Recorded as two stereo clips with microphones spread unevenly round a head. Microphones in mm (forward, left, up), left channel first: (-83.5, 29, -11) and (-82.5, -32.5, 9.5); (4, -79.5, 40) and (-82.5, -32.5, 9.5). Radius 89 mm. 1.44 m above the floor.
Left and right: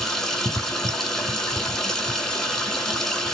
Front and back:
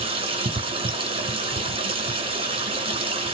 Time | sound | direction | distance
0.0 | running water | straight behind | 2.5 m